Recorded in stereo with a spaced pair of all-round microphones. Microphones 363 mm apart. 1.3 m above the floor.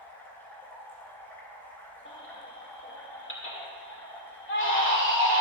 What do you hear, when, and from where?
0.0 s running water: 5° left (ahead or behind), 2.5 m
2.0 s a baby crying: 35° left (ahead or behind), 2 m